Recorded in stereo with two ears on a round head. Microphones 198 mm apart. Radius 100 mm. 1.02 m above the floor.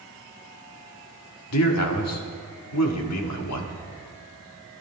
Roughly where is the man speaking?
Left.